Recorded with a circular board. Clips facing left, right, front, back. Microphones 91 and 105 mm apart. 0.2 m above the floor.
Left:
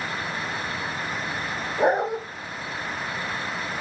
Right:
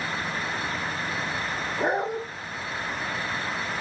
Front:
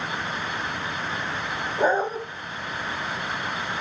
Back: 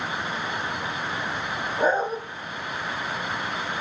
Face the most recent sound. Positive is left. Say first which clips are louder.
# left 5 dB, front 1 dB
turn(degrees=75)